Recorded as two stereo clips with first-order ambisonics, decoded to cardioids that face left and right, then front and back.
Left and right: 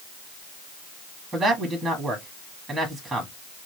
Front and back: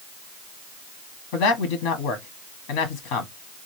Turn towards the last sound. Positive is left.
turn(degrees=-10)